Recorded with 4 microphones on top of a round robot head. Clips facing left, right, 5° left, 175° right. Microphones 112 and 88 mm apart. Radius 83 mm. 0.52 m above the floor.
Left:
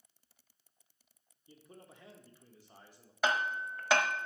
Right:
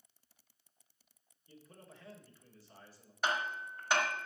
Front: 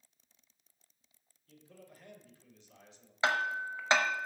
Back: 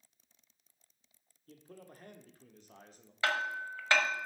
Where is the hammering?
75° left, 1.0 m.